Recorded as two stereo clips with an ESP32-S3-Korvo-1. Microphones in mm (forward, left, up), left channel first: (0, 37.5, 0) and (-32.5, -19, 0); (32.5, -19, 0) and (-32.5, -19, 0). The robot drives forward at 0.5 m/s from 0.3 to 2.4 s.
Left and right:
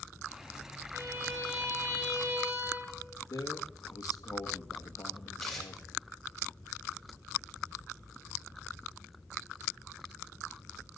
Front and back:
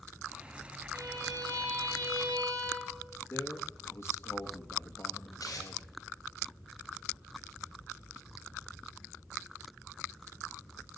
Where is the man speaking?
45° left, 1.9 m.